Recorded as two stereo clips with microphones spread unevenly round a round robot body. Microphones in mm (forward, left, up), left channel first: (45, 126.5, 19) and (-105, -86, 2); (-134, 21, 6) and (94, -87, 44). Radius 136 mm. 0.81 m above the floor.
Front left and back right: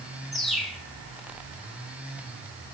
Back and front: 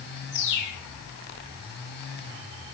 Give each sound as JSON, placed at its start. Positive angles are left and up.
{"t": 0.3, "sound": "a bird", "azimuth_deg": 145, "distance_m": 3.0}